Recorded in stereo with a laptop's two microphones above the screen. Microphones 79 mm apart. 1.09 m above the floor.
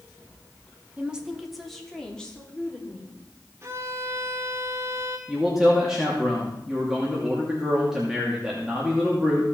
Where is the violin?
35° right (ahead or behind), 1.5 m.